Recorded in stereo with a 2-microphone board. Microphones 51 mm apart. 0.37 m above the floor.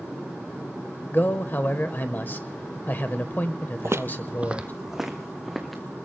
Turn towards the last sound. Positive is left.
turn(degrees=5)  # may be behind; listen again after turning